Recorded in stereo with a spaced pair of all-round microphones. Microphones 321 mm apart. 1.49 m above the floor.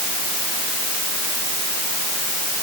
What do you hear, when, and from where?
Only background noise.